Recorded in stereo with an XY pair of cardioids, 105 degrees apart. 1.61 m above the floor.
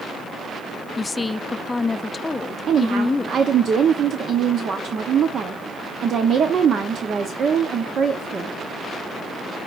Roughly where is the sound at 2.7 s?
Ahead right.